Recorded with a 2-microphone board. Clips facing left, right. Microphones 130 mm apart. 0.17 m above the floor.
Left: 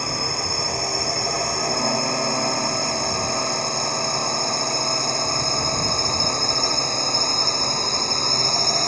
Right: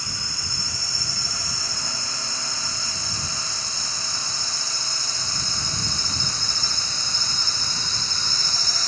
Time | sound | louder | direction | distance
0.0 | a drone | left 11 dB | 55° left (ahead or behind) | ?